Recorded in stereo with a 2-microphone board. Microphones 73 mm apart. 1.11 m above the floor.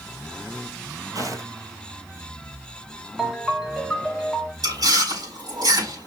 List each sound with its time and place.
1.1 s footsteps: 50° right (ahead or behind), 1.6 m
3.2 s a ringtone: 5° right (ahead or behind), 1.4 m
4.6 s chewing: 65° right (ahead or behind), 4 m